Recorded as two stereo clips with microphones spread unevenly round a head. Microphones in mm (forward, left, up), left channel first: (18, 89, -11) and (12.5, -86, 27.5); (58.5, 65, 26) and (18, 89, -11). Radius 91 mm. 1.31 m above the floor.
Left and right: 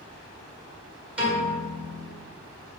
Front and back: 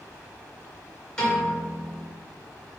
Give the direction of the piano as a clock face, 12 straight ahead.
1 o'clock.